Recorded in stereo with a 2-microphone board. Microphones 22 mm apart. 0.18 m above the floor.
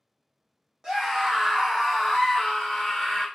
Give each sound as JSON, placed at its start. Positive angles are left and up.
{"t": 0.8, "sound": "a scream", "side_deg": -30, "distance_m": 1.1}